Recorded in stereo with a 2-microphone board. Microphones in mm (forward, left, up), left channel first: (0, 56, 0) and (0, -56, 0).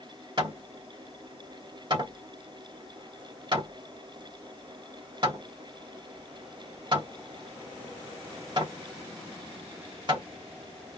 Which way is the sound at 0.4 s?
40° right (ahead or behind).